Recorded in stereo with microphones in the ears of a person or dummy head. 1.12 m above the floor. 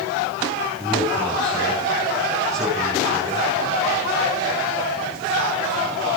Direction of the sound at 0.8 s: Centre (ahead or behind).